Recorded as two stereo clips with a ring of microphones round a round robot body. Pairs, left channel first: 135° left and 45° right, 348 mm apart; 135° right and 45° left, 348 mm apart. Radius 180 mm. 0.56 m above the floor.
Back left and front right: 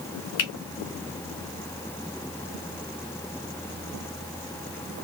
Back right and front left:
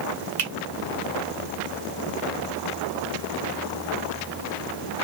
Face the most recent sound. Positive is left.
turn(degrees=80)